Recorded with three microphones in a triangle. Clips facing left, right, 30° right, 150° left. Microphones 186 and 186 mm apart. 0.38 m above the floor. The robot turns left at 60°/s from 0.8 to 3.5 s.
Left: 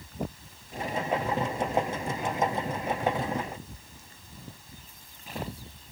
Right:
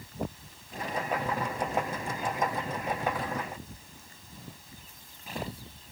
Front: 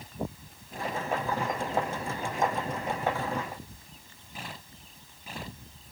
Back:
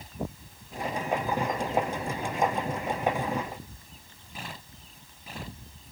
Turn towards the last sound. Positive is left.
No sound to turn to.